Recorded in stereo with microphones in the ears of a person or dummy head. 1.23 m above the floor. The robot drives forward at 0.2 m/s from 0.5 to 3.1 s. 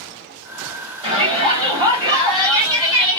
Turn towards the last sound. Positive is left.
turn(degrees=-20)  # may be behind; listen again after turning